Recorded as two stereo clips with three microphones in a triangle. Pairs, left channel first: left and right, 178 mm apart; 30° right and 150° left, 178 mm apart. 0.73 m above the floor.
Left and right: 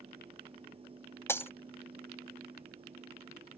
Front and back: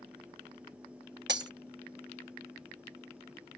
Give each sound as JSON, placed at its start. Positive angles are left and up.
{"t": 1.3, "sound": "breaking glass", "azimuth_deg": 165}